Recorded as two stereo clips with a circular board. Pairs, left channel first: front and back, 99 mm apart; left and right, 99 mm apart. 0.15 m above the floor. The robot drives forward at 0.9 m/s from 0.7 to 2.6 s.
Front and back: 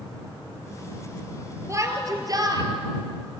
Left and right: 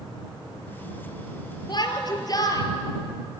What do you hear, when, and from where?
1.7 s a shout: 125° left, 2.5 m; by 2.6 s 140° left, 3.5 m